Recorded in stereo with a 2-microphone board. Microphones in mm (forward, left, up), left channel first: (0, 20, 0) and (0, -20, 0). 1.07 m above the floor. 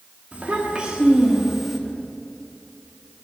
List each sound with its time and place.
0.3 s a child speaking: 35° right (ahead or behind), 1.8 m; by 1.8 s 5° left (ahead or behind), 1.4 m